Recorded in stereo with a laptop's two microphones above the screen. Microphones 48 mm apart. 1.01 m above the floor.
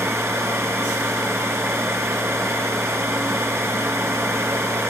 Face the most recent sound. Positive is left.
turn(degrees=-65)  # may be behind; listen again after turning